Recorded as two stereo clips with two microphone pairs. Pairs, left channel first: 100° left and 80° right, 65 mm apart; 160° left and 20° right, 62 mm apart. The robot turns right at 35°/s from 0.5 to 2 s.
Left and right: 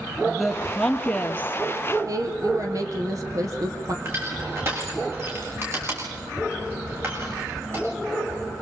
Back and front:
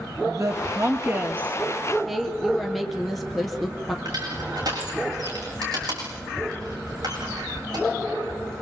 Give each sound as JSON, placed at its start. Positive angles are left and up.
{"t": 0.2, "sound": "a woman speaking", "azimuth_deg": 10, "distance_m": 3.0}
{"t": 2.1, "sound": "a woman speaking", "azimuth_deg": -110, "distance_m": 3.5}
{"t": 4.0, "sound": "crushing", "azimuth_deg": -25, "distance_m": 8.0}